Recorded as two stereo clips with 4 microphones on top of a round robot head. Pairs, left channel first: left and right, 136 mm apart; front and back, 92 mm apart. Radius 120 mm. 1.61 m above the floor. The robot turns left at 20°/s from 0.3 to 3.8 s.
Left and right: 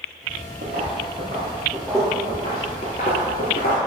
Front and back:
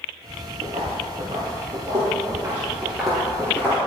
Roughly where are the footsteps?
Behind right.